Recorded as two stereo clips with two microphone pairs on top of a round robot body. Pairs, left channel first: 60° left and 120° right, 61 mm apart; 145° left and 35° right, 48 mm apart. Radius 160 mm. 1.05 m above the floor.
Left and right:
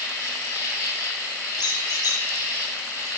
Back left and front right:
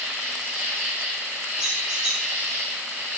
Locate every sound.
0.0 s an insect: 10° left, 2.5 m
1.6 s a squeak: 30° left, 1.1 m